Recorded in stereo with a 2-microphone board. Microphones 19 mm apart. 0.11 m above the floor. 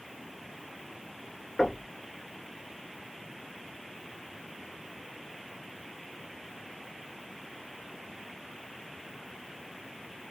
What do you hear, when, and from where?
1.6 s knocking: 35° left (ahead or behind), 1.7 m